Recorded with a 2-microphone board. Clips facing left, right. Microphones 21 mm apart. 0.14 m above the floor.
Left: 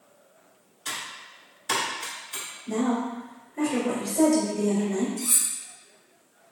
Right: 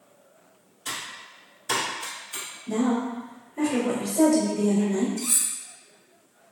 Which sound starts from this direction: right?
Cutlery clinking, at 5.2 s.